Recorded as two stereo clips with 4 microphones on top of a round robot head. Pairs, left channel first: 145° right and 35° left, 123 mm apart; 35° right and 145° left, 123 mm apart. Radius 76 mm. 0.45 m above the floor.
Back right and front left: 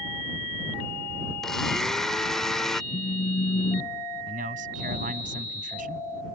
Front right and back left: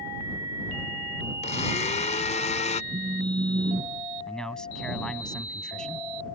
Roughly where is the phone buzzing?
Behind.